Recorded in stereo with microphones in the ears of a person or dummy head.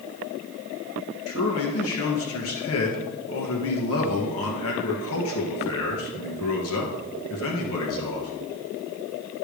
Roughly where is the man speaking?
Left.